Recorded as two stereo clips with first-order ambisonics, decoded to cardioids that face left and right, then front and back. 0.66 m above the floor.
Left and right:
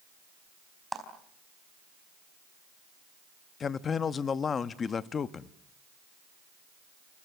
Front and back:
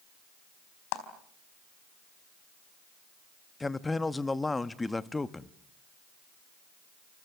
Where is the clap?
5° right, 4 m.